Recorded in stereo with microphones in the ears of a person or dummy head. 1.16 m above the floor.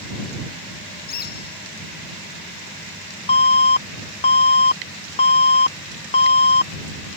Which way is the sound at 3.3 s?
30° left (ahead or behind).